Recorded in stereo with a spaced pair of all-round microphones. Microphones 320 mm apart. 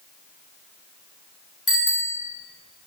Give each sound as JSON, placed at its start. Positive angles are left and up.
{"t": 1.7, "sound": "a bicycle bell", "side_deg": 45, "distance_m": 3.5}